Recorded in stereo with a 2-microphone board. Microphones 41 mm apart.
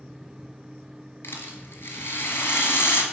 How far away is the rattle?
About 1.5 m.